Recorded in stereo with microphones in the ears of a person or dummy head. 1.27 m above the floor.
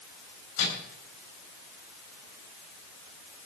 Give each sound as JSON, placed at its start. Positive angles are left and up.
{"t": 0.6, "sound": "a microwave", "side_deg": 80, "distance_m": 9.5}